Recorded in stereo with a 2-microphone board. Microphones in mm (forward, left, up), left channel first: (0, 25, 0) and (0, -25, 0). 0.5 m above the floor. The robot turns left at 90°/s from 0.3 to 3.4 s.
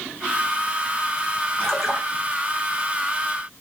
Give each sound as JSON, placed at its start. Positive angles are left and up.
{"t": 1.6, "sound": "a splash", "azimuth_deg": 25, "distance_m": 1.9}